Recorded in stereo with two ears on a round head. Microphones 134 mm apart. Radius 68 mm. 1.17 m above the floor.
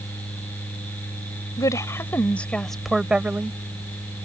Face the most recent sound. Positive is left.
turn(degrees=-15)  # may be behind; listen again after turning